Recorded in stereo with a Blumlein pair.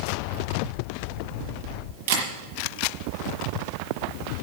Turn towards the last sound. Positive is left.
turn(degrees=-55)